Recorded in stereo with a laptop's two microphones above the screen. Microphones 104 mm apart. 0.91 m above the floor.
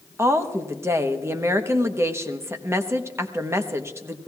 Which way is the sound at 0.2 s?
25° right (ahead or behind).